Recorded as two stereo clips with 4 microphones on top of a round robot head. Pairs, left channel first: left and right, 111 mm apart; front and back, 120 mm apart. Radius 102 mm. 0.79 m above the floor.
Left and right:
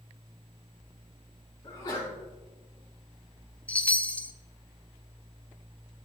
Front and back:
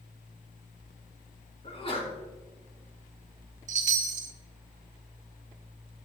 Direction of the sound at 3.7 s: 170° left.